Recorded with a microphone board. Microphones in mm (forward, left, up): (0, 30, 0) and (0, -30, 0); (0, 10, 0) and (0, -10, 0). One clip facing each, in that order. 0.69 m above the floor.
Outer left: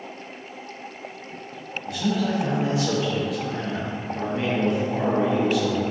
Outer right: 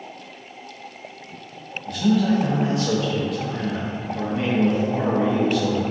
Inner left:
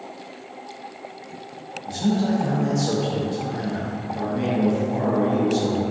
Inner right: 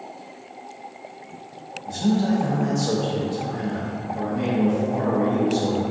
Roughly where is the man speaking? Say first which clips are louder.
Outer right 5 dB, inner right 1 dB; centre.